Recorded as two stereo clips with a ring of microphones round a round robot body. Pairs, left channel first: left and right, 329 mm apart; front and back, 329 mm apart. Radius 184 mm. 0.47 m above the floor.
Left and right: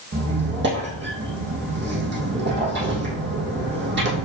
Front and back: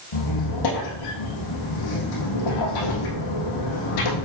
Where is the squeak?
30° right, 3 m.